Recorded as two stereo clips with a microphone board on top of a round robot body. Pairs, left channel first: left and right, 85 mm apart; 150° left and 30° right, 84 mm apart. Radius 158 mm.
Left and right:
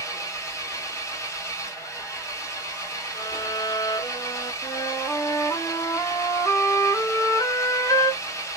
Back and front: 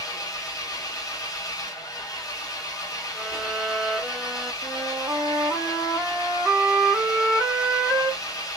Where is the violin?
60° left, 0.8 m.